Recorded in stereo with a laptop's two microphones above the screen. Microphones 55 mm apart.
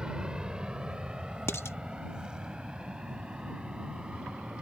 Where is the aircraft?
15° right (ahead or behind).